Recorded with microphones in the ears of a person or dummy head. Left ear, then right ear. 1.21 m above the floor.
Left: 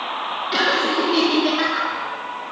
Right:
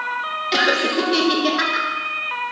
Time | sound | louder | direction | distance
0.5 | laughter | right 1 dB | 20° right (ahead or behind) | 1.3 m